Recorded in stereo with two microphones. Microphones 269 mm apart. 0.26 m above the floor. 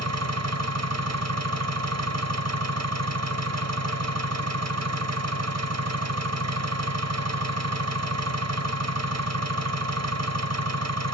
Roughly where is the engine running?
Right.